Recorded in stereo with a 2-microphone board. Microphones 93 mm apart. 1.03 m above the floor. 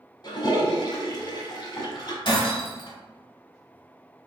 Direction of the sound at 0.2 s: 45° left (ahead or behind).